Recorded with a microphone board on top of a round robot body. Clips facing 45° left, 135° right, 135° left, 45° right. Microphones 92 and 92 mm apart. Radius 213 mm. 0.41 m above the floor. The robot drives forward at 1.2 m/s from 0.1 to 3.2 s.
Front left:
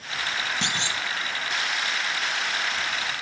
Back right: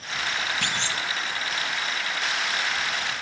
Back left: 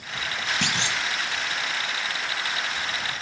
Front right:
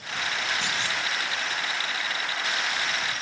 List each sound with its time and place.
0.6 s a clunk: 115° left, 1.9 m; by 1.0 s 125° left, 2 m